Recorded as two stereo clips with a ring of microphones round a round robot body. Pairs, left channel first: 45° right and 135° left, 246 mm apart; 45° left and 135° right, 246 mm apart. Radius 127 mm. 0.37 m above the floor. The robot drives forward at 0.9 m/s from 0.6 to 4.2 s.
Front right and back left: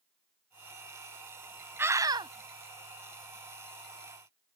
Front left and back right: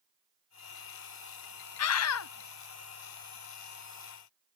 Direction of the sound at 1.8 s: 55° left.